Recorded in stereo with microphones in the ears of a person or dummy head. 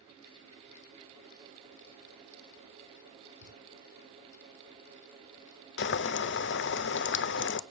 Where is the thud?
25° right (ahead or behind), 6 m.